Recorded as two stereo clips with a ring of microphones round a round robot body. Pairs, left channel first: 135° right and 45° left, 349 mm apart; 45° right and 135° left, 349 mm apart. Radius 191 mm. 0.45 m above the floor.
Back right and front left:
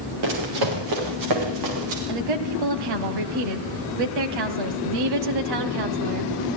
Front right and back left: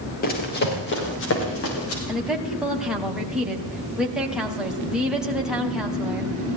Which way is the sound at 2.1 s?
45° left.